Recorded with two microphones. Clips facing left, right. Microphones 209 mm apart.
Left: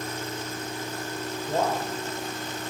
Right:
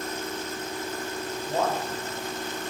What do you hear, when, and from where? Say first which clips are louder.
1.5 s a man speaking: left 1 dB; 15° left (ahead or behind), 2.5 m